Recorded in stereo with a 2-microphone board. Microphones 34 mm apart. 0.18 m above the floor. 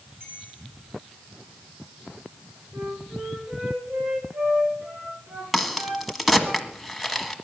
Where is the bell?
80° right, 9.5 m.